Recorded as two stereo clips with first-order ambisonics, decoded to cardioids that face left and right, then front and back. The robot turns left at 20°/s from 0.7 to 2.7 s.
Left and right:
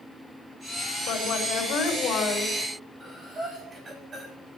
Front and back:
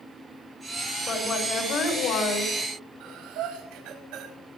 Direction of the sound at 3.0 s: 160° right.